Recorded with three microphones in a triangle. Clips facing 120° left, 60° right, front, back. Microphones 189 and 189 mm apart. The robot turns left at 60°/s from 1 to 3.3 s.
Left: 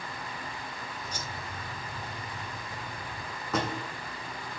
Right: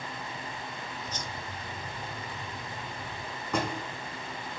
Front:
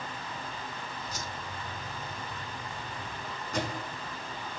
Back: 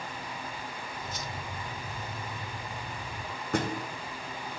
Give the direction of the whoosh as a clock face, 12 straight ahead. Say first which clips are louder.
Right 1 dB, back 1 dB; 11 o'clock.